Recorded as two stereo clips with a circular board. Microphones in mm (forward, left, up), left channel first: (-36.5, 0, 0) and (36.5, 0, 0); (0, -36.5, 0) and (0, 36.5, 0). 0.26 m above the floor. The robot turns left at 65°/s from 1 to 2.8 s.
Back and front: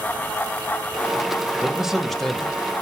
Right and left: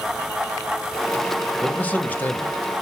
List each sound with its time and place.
1.6 s a man speaking: 60° right, 1.0 m; by 2.8 s 140° right, 1.0 m